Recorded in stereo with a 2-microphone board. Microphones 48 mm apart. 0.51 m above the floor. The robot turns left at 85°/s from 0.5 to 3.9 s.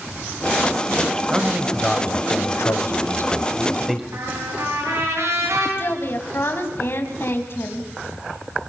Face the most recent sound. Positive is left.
turn(degrees=50)  # may be behind; listen again after turning